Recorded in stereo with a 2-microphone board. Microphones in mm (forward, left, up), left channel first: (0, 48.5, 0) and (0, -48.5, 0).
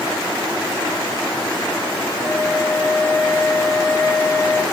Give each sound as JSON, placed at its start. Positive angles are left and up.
{"t": 2.2, "sound": "a flute", "side_deg": 20, "distance_m": 4.0}